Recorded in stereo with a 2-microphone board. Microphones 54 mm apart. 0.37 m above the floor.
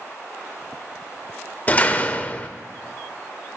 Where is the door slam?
30° left (ahead or behind), 0.5 m.